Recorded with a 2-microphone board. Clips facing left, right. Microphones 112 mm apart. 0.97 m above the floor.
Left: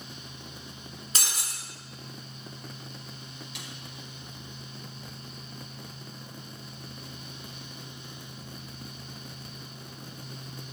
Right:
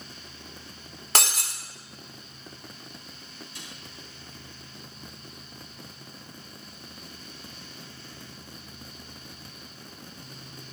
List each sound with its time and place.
1.1 s breaking glass: 75° right (ahead or behind), 1.8 m
3.5 s a snare drum: 80° left, 3.5 m